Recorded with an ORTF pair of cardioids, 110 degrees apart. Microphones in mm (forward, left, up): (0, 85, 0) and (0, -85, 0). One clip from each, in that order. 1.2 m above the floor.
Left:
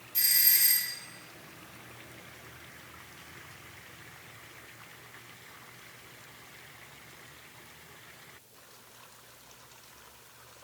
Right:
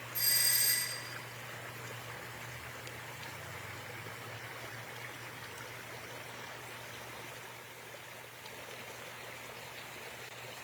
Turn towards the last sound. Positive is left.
turn(degrees=65)